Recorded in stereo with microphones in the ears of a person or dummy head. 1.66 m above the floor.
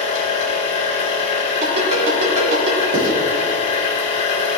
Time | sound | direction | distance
0.0 | a machine running | 45° left (ahead or behind) | 1.8 m
1.6 | a ringtone | 65° right (ahead or behind) | 3 m
2.9 | writing | 50° right (ahead or behind) | 2 m